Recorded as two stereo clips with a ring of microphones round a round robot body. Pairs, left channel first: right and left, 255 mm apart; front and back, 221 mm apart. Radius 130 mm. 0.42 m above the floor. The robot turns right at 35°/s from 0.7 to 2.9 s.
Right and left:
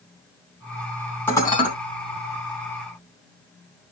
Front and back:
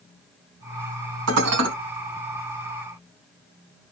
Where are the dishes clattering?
170° right, 3 m; by 1.7 s 155° right, 3 m.